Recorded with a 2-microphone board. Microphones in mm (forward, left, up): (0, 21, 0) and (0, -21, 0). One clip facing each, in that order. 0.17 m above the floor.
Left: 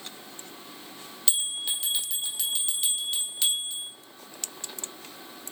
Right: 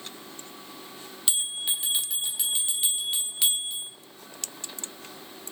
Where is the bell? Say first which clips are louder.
Even; 20° right (ahead or behind), 0.9 m.